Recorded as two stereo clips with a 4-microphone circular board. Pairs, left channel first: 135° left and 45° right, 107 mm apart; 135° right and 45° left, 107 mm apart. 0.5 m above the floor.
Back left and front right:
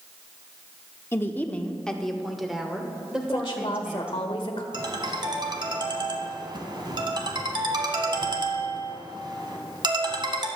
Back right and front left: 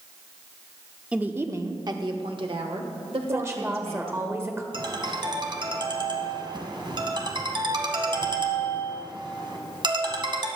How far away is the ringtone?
About 1.4 m.